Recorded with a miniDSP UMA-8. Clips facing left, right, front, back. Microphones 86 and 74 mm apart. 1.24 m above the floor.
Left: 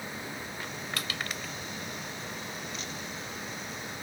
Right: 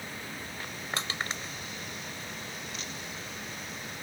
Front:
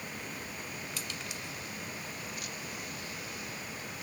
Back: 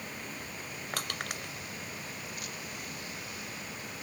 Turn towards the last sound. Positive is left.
turn(degrees=-150)